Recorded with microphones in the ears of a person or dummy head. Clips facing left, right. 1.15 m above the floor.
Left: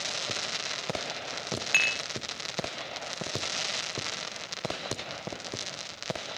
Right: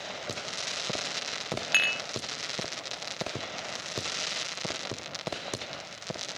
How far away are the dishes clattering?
About 0.7 m.